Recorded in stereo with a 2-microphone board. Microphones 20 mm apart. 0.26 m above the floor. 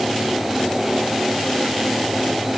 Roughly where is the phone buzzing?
I don't hear a phone buzzing.